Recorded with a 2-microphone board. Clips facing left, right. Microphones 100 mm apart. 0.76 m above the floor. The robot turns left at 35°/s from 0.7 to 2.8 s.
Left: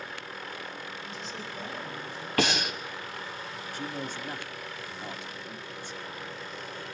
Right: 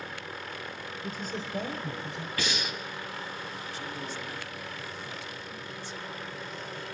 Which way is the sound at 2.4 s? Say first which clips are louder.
Left 8 dB; 70° left (ahead or behind).